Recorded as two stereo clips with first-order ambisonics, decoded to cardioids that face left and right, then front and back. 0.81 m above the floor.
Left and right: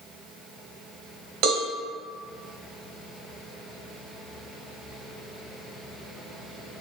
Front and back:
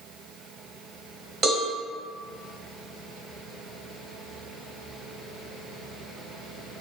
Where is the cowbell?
120° right, 1.3 m.